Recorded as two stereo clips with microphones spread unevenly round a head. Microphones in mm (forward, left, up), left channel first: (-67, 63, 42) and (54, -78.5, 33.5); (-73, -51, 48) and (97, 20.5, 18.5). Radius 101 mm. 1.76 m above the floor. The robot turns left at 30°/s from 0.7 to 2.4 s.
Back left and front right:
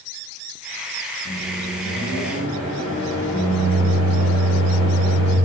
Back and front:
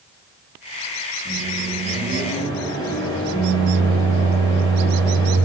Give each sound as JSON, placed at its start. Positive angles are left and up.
{"t": 1.2, "sound": "a microwave", "azimuth_deg": 170, "distance_m": 5.0}